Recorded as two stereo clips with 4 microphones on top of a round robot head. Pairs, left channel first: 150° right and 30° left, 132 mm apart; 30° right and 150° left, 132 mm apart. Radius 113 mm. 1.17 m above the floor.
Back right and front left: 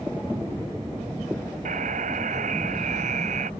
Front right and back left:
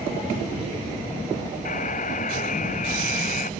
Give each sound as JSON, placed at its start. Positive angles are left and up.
{"t": 1.6, "sound": "a buzzer", "azimuth_deg": 0}